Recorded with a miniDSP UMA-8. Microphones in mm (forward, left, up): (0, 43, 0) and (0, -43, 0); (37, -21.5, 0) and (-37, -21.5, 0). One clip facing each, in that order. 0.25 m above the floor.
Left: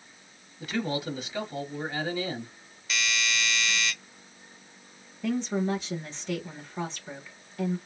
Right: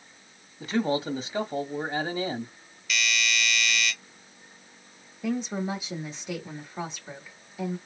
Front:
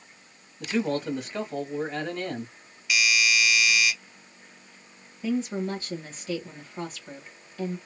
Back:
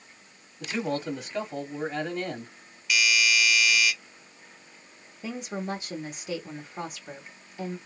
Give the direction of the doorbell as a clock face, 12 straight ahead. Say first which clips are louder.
Right 2 dB, even; 9 o'clock.